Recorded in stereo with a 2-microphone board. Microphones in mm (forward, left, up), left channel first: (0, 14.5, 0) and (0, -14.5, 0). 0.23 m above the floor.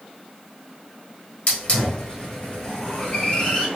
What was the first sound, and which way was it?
A hiss, 50° left (ahead or behind).